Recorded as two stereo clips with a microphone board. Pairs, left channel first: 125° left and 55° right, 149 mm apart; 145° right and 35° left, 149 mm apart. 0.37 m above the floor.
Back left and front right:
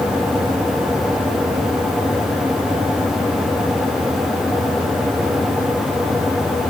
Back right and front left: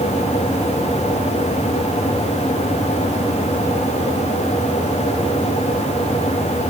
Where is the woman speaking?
I don't hear a woman speaking.